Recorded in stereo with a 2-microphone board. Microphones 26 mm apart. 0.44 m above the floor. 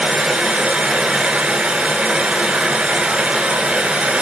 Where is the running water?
55° right (ahead or behind), 0.7 m.